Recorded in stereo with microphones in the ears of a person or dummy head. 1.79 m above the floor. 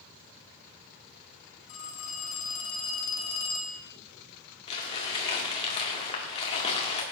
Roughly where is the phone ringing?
Left.